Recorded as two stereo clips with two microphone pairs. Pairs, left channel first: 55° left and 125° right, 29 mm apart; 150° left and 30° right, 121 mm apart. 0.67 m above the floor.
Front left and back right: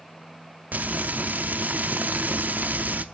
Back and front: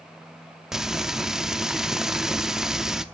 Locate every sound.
0.7 s frying: 120° right, 0.7 m